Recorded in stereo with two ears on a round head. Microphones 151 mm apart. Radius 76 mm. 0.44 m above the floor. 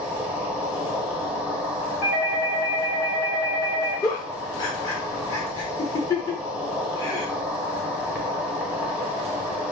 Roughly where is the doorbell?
Left.